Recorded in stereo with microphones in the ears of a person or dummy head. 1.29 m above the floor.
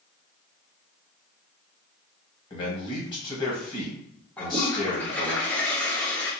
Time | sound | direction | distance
2.5 | a man speaking | 20° left (ahead or behind) | 1.2 m
4.4 | a toilet flushing | 10° left (ahead or behind) | 0.7 m